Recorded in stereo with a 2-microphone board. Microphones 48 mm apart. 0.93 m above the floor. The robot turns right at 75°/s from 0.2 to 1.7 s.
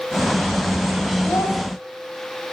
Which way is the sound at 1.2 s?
65° left (ahead or behind).